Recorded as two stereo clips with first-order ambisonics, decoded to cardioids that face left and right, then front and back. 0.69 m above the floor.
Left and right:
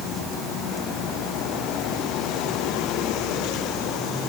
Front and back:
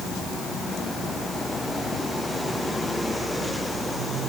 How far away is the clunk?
I don't hear a clunk.